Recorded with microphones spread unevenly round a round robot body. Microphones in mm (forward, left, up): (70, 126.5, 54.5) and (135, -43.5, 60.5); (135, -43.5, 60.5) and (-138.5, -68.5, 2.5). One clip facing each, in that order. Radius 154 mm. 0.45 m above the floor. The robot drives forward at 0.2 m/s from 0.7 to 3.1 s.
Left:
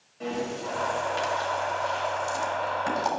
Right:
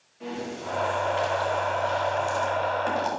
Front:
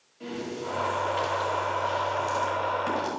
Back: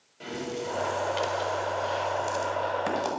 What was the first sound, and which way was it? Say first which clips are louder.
Breathing: left 3 dB, even; 170° left.